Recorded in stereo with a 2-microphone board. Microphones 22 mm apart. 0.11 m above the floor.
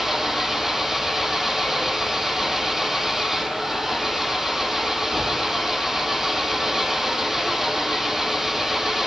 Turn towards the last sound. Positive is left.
turn(degrees=-15)  # may be behind; listen again after turning